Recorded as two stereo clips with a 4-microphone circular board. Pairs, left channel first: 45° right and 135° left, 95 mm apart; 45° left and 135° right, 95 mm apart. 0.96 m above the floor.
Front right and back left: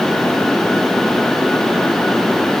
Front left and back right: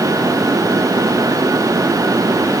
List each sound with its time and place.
Only background noise.